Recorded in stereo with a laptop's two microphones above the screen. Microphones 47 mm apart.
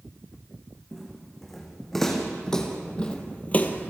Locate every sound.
0.9 s footsteps: 5° left (ahead or behind), 4.5 m; by 3.9 s 45° left (ahead or behind), 1.3 m